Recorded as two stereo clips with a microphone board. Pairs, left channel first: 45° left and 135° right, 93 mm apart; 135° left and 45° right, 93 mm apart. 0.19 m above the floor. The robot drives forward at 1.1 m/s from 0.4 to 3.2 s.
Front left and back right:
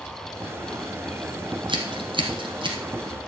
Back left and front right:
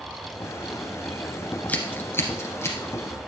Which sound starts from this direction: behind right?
Scissors, at 1.7 s.